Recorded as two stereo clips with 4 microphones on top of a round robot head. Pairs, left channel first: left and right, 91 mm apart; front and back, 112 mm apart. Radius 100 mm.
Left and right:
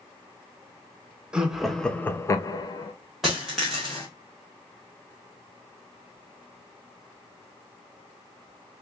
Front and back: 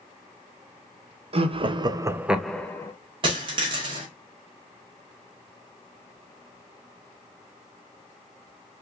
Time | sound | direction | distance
1.3 | laughter | 170° right | 0.7 m
3.2 | a dropped coin | straight behind | 0.7 m